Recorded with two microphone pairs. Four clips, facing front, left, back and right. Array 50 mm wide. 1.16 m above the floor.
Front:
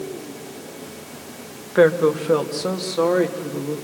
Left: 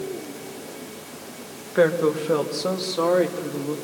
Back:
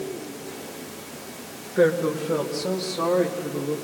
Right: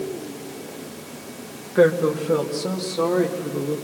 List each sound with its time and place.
1.8 s a woman speaking: 10° left, 1.0 m; by 3.7 s 40° left, 2 m